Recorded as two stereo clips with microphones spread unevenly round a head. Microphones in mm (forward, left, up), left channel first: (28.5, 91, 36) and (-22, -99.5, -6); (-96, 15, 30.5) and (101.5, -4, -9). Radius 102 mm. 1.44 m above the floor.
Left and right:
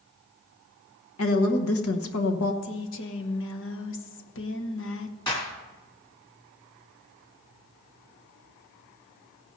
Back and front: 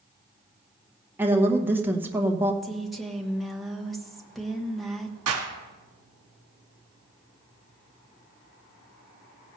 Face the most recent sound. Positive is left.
turn(degrees=10)